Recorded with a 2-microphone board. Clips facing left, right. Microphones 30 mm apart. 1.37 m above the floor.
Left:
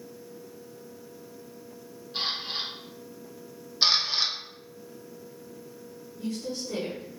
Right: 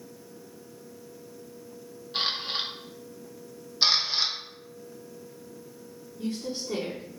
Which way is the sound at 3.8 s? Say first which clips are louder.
Even; 5° left (ahead or behind).